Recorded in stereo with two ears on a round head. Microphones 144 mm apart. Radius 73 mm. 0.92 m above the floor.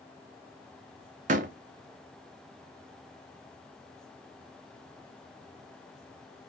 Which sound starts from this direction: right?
A door slam, at 1.3 s.